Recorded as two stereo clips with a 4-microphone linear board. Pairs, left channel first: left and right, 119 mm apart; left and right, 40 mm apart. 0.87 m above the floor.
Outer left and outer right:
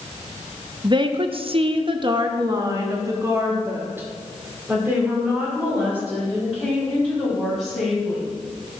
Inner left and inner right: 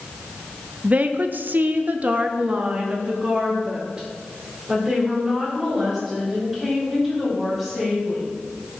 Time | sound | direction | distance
0.8 | a woman speaking | 40° right (ahead or behind) | 0.6 m